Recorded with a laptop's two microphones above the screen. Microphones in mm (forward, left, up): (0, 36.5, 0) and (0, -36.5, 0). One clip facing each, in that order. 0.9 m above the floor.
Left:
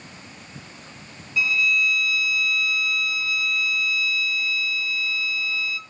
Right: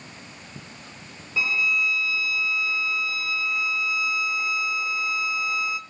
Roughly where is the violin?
Right.